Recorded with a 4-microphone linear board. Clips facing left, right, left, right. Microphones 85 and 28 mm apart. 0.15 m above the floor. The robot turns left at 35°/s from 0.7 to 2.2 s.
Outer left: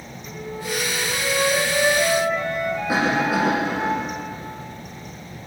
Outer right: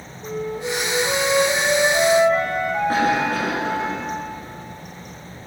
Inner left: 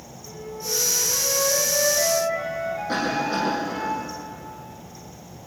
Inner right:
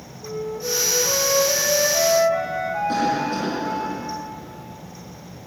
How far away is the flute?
About 6.5 m.